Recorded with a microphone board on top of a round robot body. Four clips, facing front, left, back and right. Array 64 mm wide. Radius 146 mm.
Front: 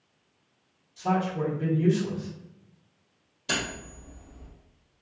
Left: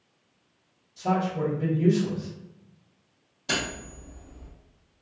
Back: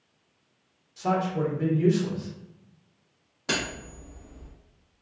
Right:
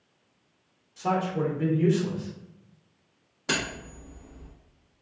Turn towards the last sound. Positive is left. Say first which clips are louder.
# even, back 1 dB
turn(degrees=-150)